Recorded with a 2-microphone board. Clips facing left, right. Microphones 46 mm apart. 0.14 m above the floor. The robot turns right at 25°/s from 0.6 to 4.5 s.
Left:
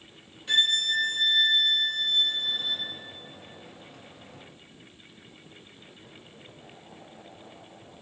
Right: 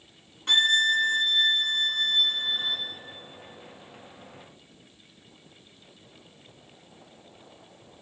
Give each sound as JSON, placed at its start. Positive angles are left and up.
{"t": 0.5, "sound": "a violin", "azimuth_deg": -80, "distance_m": 1.6}